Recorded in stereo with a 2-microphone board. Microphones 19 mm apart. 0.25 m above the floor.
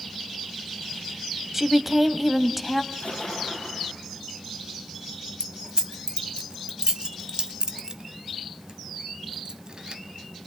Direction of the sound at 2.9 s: 80° left.